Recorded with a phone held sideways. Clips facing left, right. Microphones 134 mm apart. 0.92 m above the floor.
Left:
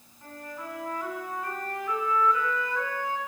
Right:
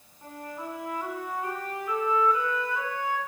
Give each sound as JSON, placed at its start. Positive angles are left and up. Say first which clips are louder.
{"t": 0.2, "sound": "a flute", "louder": "right 2 dB", "side_deg": -15, "distance_m": 3.5}